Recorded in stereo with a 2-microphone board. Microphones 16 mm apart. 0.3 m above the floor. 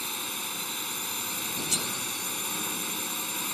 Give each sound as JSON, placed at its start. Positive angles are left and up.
{"t": 0.0, "sound": "a drone", "side_deg": 5}
{"t": 1.7, "sound": "cutlery clinking", "side_deg": -15}